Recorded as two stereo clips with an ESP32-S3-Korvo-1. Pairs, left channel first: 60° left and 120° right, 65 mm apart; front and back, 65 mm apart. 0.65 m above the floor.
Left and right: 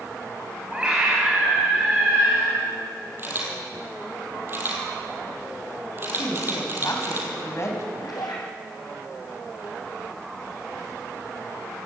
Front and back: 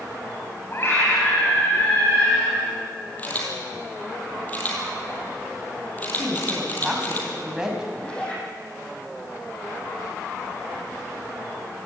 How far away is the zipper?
About 5 m.